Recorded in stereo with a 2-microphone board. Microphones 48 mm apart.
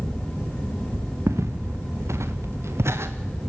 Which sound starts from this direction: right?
Footsteps, at 1.3 s.